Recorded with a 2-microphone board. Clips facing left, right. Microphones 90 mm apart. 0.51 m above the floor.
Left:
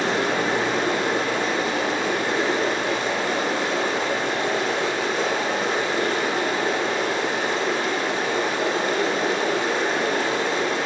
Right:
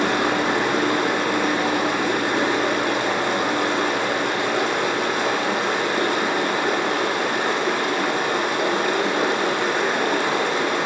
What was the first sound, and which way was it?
Running water, 70° right (ahead or behind).